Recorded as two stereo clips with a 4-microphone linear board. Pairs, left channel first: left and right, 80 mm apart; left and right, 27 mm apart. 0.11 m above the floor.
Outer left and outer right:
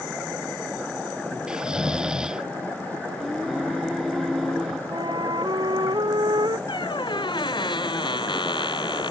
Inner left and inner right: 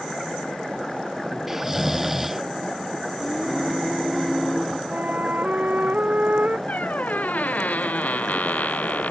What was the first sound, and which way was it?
Snoring, 10° right (ahead or behind).